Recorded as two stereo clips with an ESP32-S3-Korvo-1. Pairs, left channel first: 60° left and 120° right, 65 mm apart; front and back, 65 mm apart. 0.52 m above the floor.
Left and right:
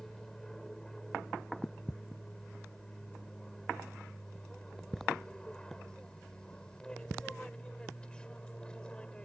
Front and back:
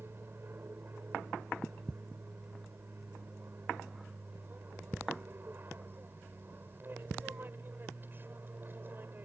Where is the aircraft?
140° left; by 9.3 s 130° left.